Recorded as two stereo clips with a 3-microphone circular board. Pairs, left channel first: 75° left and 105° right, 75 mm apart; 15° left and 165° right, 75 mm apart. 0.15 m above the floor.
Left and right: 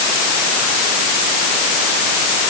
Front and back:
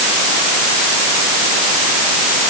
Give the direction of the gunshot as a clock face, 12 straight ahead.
No gunshot in this recording.